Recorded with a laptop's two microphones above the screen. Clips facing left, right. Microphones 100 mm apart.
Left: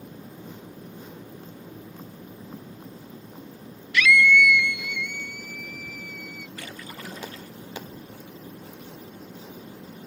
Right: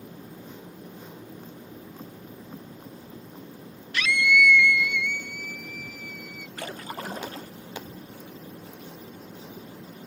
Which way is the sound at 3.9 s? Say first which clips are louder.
Left 4 dB; 35° right (ahead or behind).